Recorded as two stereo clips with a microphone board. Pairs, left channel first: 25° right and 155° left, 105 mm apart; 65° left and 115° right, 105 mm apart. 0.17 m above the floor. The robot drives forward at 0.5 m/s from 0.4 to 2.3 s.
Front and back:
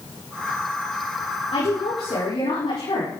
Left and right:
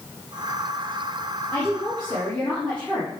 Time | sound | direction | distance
1.5 | a woman speaking | 10° right | 6.5 m